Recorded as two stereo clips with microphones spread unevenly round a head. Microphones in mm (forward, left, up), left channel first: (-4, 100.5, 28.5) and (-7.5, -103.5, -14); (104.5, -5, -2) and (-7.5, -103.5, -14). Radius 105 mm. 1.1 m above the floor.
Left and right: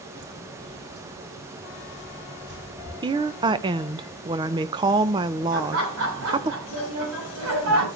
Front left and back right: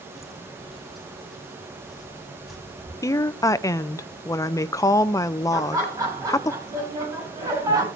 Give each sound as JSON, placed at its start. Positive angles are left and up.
{"t": 0.1, "sound": "footsteps", "azimuth_deg": -45, "distance_m": 1.9}
{"t": 3.0, "sound": "a woman speaking", "azimuth_deg": -30, "distance_m": 0.5}
{"t": 5.5, "sound": "laughter", "azimuth_deg": -70, "distance_m": 9.0}